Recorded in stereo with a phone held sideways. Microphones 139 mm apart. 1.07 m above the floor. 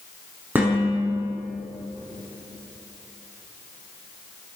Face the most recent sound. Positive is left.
turn(degrees=-10)  # may be behind; listen again after turning